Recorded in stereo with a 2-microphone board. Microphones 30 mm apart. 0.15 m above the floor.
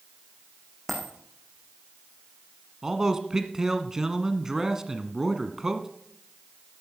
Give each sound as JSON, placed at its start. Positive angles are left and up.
{"t": 0.9, "sound": "a dropped coin", "side_deg": 5, "distance_m": 3.0}
{"t": 2.8, "sound": "a man speaking", "side_deg": -20, "distance_m": 1.2}